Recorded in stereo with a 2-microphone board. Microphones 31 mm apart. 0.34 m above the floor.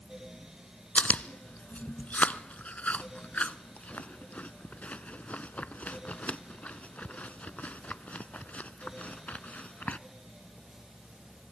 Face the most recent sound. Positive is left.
turn(degrees=55)  # may be behind; listen again after turning